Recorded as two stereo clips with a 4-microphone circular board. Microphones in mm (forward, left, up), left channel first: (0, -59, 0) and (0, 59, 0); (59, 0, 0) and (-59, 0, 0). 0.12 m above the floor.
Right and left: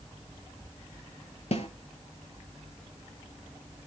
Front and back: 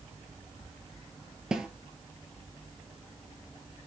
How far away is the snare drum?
About 0.5 m.